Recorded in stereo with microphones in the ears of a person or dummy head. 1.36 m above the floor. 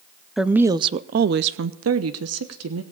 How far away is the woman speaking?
About 0.5 m.